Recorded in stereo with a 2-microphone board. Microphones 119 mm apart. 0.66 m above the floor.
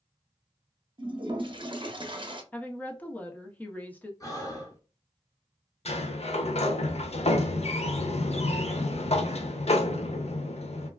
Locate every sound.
1.0 s a toilet flushing: 45° right (ahead or behind), 0.6 m
2.5 s a woman speaking: 15° left (ahead or behind), 0.5 m
4.2 s breathing: 30° left (ahead or behind), 0.8 m
5.8 s a sliding door: 60° left (ahead or behind), 0.5 m